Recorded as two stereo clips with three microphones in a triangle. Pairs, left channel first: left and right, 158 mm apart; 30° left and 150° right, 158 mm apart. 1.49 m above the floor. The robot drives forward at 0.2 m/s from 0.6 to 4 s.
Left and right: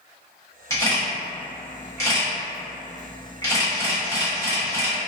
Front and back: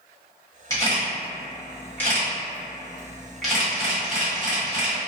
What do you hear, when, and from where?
0.7 s a camera shutter: 55° left, 1.3 m; by 5.0 s 130° left, 1.4 m